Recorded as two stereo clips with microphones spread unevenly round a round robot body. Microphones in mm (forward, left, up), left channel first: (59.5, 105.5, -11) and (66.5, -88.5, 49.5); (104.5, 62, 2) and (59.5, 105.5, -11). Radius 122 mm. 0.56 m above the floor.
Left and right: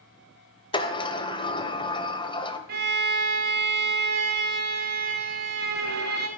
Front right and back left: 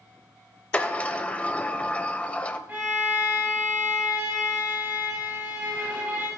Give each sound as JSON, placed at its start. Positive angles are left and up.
{"t": 0.7, "sound": "a sliding door", "azimuth_deg": 25, "distance_m": 1.2}
{"t": 2.7, "sound": "a violin", "azimuth_deg": -140, "distance_m": 1.4}